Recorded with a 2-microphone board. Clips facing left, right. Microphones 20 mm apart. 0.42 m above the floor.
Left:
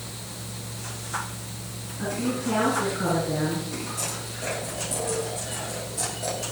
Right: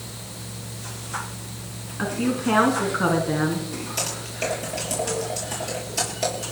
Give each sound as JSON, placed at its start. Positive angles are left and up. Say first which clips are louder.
{"t": 2.0, "sound": "a woman speaking", "louder": "right 4 dB", "side_deg": -70, "distance_m": 4.0}
{"t": 4.0, "sound": "typing on a keyboard", "louder": "right 4 dB", "side_deg": -85, "distance_m": 9.0}